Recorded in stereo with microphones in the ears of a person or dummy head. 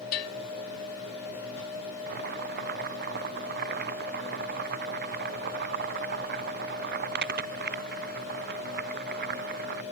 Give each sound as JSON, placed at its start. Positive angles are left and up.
{"t": 0.1, "sound": "a bell", "side_deg": 50}
{"t": 2.1, "sound": "boiling", "side_deg": -55}